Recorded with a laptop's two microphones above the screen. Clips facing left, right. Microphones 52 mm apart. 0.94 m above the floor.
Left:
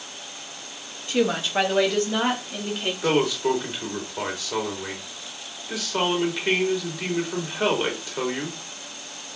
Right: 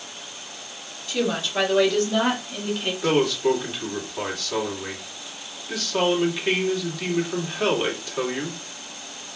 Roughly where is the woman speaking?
Left.